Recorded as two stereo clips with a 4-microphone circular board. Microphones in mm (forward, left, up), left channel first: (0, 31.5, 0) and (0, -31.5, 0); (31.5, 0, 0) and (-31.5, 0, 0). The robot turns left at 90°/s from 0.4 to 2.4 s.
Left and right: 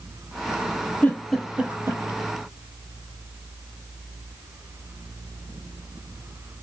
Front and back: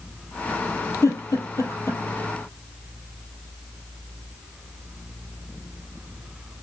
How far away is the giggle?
About 2 m.